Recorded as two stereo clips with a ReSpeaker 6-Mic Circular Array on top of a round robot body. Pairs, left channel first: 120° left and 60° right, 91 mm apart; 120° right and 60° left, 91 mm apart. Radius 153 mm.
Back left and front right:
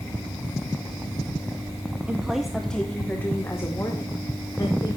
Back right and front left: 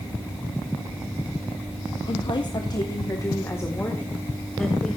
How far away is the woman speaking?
About 1.5 m.